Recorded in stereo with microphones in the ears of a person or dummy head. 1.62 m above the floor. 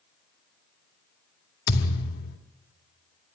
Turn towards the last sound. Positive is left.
turn(degrees=50)  # may be behind; listen again after turning